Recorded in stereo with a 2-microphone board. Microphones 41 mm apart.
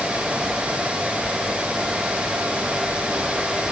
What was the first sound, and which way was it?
Only background noise.